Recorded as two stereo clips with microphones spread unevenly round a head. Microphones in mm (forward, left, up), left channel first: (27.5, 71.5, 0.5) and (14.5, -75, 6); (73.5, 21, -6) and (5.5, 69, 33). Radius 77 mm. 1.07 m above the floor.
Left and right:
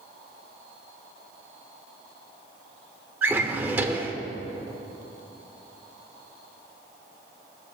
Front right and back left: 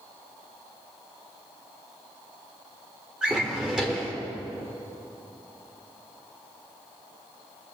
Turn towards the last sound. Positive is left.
turn(degrees=-165)